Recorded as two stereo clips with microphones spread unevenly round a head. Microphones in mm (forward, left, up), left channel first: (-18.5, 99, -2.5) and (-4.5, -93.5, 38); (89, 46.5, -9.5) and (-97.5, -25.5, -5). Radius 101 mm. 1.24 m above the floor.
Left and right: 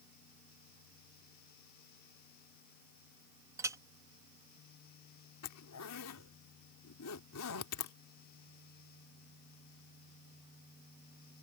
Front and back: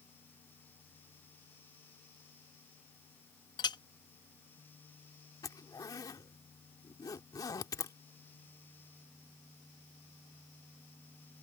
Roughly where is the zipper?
Left.